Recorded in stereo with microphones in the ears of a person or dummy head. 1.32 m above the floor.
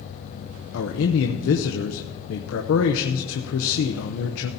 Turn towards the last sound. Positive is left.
turn(degrees=70)  # may be behind; listen again after turning